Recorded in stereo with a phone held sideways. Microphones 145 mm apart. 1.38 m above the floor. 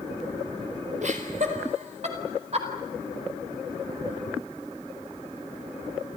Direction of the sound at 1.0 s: 60° right (ahead or behind).